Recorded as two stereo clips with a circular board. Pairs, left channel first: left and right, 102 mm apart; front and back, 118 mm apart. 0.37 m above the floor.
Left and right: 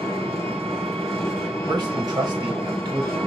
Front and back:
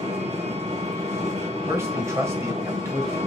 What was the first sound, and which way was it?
An engine running, 175° left.